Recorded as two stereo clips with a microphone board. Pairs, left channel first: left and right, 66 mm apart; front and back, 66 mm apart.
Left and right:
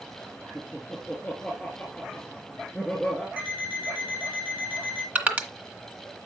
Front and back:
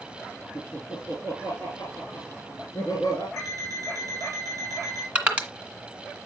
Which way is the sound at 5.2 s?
125° right.